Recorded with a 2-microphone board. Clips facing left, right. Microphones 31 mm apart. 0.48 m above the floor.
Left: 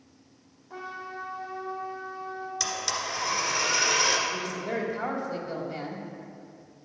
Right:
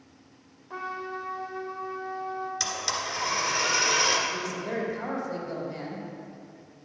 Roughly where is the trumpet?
Right.